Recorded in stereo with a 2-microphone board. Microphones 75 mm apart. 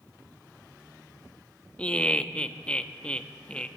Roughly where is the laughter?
Centre.